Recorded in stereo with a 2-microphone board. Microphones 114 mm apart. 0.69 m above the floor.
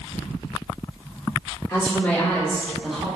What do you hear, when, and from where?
1.7 s a woman speaking: 20° left (ahead or behind), 1.9 m; by 3.0 s 5° right (ahead or behind), 1.0 m